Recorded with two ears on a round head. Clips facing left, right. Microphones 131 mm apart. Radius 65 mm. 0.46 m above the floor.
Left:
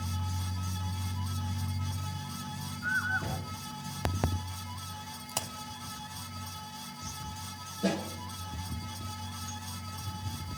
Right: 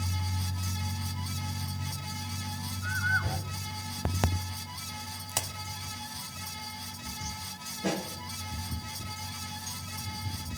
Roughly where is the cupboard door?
Left.